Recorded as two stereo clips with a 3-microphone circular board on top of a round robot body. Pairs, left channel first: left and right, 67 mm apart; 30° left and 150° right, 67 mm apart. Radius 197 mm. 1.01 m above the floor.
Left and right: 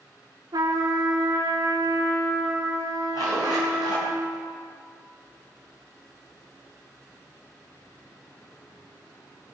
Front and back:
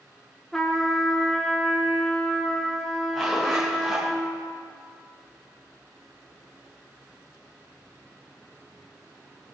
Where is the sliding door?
No sliding door in this recording.